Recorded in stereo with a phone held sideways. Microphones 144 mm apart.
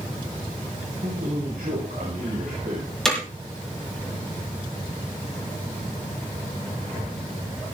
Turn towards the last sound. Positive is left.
turn(degrees=5)  # may be behind; listen again after turning